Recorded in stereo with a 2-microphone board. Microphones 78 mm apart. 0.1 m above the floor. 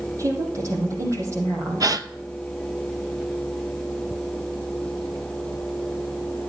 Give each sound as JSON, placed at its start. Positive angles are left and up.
{"t": 0.2, "sound": "a woman speaking", "side_deg": -40, "distance_m": 3.5}
{"t": 1.8, "sound": "a gasp", "side_deg": -55, "distance_m": 0.6}